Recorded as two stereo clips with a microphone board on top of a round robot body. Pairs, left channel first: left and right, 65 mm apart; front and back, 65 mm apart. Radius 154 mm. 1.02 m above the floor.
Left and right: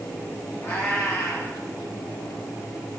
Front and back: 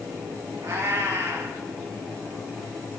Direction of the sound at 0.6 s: 140° left.